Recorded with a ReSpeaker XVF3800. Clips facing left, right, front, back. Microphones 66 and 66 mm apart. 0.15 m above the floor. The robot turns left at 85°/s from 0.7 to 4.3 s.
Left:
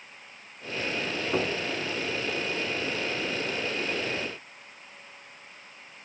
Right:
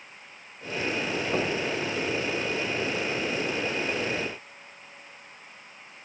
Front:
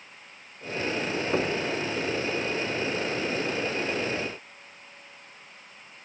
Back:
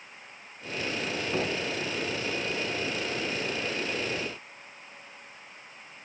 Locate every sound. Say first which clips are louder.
1.3 s knocking: even, front 3 dB; 15° left, 1.2 m; by 1.6 s 5° right, 1.2 m